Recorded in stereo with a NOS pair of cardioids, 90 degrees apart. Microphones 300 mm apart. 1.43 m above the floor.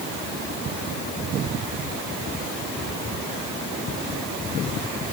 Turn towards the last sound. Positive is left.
No sound to turn to.